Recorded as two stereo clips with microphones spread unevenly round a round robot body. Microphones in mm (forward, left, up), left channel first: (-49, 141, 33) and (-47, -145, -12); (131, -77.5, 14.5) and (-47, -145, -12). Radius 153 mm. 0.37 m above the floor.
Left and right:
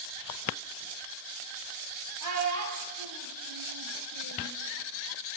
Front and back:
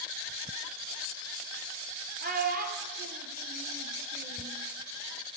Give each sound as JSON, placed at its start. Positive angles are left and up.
{"t": 2.2, "sound": "a child speaking", "azimuth_deg": -120, "distance_m": 7.0}